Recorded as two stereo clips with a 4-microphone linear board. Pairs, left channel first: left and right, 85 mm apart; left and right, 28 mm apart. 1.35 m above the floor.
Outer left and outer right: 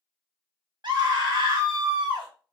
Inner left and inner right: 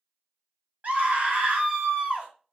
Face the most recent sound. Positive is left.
turn(degrees=-65)  # may be behind; listen again after turning